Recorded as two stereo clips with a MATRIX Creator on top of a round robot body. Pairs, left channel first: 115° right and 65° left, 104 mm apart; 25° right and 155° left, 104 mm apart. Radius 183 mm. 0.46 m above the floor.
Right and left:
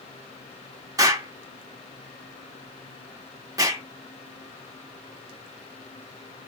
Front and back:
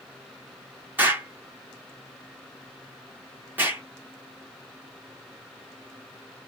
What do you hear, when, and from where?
1.0 s an explosion: 95° left, 1.5 m